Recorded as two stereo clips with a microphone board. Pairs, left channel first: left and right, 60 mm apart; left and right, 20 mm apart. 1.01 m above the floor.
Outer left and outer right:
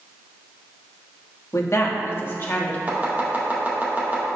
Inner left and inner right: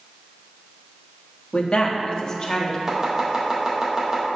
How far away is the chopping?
About 2.0 m.